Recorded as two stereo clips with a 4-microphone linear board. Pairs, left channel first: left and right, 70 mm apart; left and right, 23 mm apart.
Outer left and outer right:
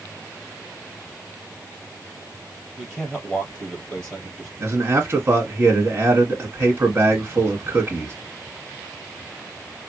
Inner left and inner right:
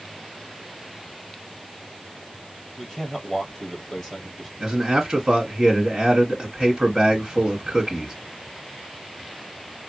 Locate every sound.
2.8 s a man speaking: 5° left (ahead or behind), 3 m
4.6 s a man speaking: 40° right (ahead or behind), 1.6 m